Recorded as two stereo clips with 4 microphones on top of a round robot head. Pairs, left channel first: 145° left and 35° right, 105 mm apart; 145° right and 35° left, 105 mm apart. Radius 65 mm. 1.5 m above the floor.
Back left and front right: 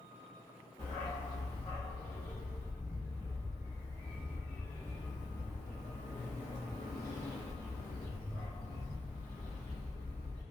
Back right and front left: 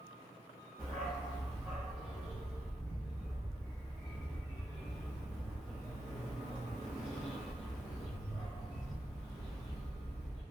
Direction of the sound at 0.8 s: 110° left.